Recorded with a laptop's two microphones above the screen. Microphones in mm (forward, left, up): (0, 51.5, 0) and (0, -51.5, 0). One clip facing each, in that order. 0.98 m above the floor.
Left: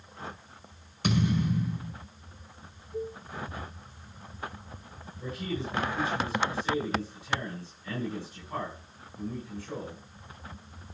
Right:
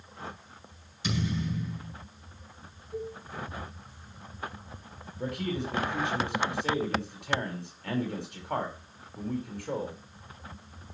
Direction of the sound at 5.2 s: 90° right.